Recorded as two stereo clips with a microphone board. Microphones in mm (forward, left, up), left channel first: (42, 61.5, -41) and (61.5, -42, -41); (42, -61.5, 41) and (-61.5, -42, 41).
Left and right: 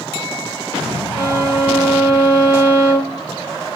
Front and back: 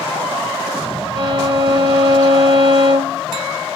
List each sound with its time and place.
1.1 s a violin: 145° right, 0.9 m